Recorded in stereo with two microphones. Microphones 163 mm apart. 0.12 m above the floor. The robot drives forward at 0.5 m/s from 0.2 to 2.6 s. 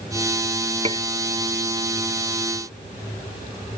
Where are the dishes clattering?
40° right (ahead or behind).